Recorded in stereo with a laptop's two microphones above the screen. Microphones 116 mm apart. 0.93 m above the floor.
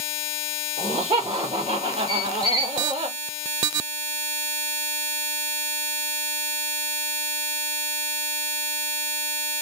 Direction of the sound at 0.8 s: 55° right (ahead or behind).